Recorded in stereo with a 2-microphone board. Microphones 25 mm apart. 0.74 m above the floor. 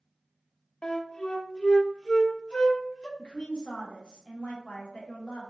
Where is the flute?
40° left (ahead or behind), 0.6 m.